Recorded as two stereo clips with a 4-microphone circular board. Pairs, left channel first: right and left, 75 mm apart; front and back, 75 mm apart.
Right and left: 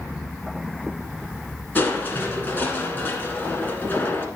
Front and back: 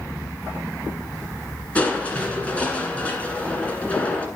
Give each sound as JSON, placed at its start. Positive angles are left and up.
{"t": 1.8, "sound": "crushing", "azimuth_deg": -55, "distance_m": 1.5}